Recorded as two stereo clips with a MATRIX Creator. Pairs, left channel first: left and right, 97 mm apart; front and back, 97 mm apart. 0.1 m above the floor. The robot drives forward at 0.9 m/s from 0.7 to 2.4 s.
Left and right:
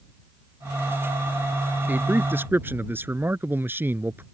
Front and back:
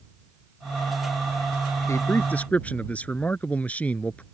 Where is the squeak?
I don't hear a squeak.